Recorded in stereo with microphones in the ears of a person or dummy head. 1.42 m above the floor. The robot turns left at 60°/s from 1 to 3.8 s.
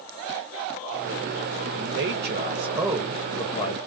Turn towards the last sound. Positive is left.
turn(degrees=145)